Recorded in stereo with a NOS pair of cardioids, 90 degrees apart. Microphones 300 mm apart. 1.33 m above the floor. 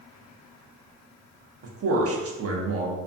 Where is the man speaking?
50° right, 0.7 m.